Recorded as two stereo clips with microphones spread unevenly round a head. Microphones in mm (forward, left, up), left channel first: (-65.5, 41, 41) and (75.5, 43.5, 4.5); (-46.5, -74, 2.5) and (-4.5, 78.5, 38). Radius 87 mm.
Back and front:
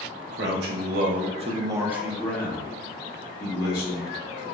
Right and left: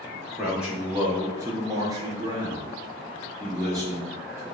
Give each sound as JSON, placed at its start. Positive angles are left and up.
{"t": 0.3, "sound": "a man speaking", "azimuth_deg": -5, "distance_m": 0.8}